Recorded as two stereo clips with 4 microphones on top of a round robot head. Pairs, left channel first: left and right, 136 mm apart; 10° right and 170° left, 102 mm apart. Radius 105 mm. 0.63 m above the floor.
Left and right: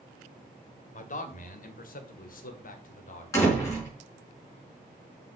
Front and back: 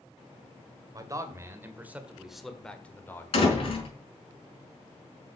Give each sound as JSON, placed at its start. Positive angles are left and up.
{"t": 0.9, "sound": "a man speaking", "azimuth_deg": 115, "distance_m": 2.5}
{"t": 3.3, "sound": "a door slam", "azimuth_deg": 20, "distance_m": 5.0}